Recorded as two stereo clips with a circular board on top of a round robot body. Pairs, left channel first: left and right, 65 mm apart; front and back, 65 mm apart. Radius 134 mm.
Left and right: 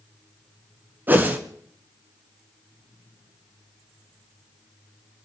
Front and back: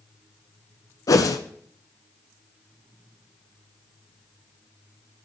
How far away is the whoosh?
About 0.9 m.